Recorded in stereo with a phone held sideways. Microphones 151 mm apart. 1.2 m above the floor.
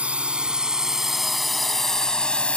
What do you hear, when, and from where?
0.0 s a drone: 10° right (ahead or behind); by 2.6 s 10° left (ahead or behind)